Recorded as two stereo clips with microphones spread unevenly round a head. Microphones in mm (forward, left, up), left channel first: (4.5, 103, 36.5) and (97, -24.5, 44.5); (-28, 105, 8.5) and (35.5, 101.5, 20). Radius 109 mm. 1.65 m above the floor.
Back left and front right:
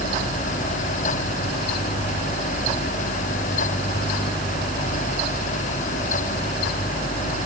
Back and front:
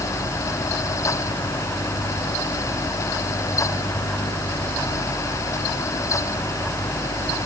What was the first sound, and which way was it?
Only background noise.